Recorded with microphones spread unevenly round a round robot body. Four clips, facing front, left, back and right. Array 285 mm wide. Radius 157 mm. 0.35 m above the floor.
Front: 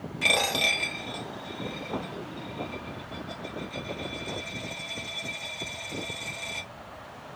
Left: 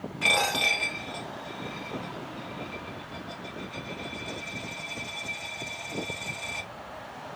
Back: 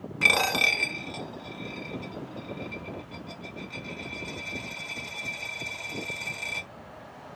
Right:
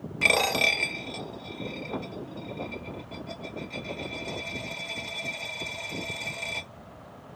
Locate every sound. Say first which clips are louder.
0.2 s a dropped coin: right 2 dB, back 2 dB; 135° right, 0.6 m